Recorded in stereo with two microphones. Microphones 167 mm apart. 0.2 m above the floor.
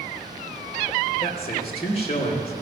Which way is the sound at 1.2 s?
35° left (ahead or behind).